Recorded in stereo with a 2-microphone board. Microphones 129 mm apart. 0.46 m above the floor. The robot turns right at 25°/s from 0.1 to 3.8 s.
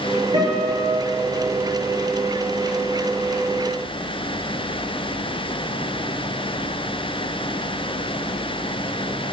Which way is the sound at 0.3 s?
50° right (ahead or behind).